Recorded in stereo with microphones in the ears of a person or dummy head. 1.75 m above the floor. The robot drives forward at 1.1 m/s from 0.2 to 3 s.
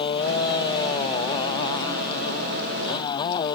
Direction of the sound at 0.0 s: 20° left (ahead or behind).